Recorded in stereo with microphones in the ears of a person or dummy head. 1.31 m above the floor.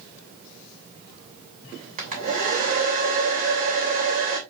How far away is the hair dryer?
About 2.5 m.